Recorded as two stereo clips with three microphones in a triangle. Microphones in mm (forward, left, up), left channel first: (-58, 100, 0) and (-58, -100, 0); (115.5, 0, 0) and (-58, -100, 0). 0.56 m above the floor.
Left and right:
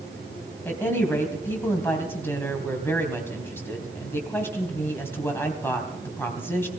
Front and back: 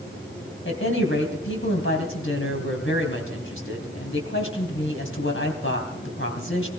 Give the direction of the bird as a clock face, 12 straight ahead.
No bird in this recording.